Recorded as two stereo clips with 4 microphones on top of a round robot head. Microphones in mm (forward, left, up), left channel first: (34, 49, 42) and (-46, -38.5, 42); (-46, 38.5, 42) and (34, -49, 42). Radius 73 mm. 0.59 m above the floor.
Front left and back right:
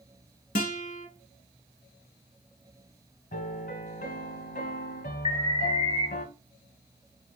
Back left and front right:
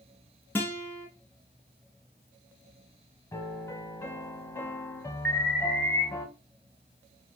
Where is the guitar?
55° left, 1.3 m.